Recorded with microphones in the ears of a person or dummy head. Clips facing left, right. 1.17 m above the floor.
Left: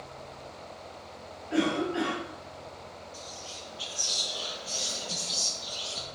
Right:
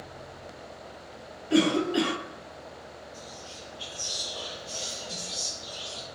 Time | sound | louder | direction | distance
1.5 | a cough | right 4 dB | 50° right (ahead or behind) | 0.5 m
3.1 | whispering | even | 25° left (ahead or behind) | 0.6 m